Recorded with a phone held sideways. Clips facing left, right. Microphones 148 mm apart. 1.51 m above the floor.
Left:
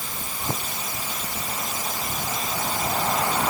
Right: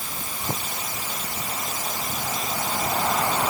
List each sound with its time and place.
Only background noise.